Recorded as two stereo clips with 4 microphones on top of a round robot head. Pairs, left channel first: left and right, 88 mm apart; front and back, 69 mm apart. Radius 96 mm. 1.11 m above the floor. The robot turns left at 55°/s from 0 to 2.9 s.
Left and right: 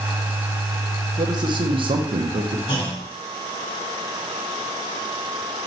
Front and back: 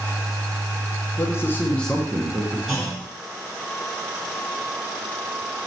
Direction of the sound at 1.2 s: 45° right.